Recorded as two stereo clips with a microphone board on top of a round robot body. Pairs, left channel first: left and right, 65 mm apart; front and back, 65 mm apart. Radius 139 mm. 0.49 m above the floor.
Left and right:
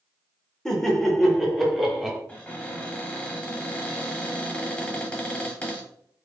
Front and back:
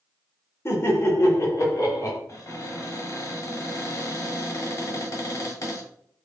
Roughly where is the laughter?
Ahead.